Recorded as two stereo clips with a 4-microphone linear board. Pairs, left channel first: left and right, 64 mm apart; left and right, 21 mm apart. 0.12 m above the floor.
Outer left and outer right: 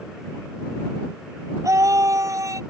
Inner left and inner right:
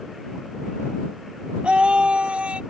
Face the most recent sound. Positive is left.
turn(degrees=-60)  # may be behind; listen again after turning